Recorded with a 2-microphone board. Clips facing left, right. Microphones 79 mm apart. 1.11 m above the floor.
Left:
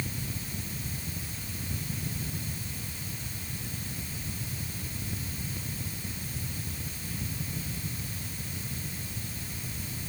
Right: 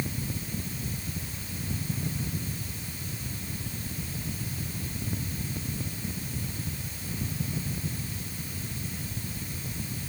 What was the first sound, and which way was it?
Only background noise.